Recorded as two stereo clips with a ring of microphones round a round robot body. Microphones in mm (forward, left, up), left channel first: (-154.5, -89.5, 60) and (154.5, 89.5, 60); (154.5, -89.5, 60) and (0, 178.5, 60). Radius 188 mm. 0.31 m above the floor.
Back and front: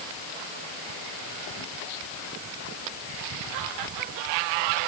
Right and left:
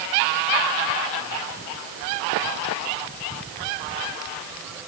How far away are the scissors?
No scissors in this recording.